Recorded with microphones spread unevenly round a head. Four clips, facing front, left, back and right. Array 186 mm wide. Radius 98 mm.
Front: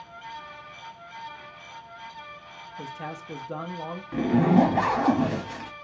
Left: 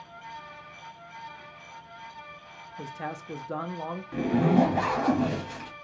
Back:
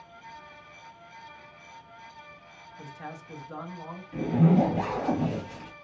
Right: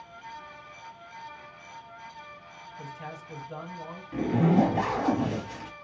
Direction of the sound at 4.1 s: Straight ahead.